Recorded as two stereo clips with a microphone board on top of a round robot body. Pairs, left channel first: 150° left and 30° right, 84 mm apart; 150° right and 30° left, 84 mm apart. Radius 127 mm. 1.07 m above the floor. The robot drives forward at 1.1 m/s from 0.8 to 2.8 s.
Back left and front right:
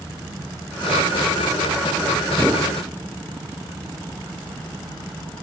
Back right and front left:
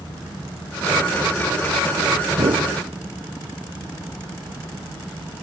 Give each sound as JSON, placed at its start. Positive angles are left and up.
{"t": 2.3, "sound": "a whoosh", "azimuth_deg": 55, "distance_m": 1.0}